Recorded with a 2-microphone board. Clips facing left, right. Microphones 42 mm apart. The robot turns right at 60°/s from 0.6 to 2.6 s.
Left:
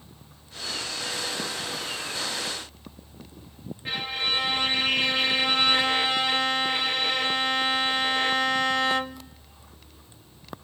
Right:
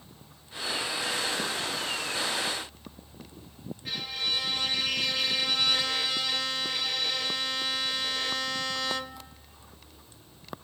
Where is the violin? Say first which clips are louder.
Left 5 dB; 35° left (ahead or behind), 0.6 m.